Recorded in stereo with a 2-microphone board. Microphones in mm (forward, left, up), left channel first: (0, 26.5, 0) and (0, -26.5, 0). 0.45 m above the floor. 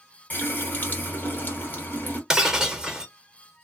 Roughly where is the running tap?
Left.